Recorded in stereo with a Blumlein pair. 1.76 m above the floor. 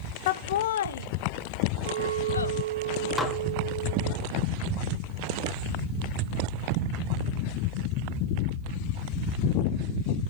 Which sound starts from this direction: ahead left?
Laughter, at 0.3 s.